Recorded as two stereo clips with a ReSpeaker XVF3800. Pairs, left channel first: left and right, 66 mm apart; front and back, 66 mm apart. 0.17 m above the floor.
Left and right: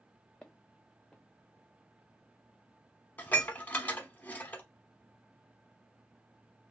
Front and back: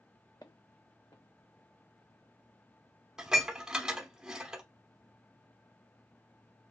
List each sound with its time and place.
0.4 s footsteps: 10° left, 0.6 m
3.2 s dishes clattering: 115° left, 0.8 m